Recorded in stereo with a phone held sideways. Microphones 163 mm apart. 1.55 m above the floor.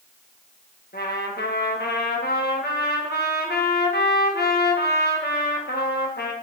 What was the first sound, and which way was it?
A trumpet, 85° left.